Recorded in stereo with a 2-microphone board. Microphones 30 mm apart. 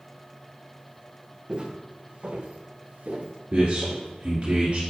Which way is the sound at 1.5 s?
30° right (ahead or behind).